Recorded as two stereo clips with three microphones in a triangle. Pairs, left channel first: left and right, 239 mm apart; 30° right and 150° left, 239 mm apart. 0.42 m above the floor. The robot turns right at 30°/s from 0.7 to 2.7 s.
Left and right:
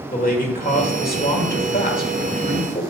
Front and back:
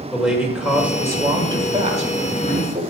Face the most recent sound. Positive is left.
turn(degrees=125)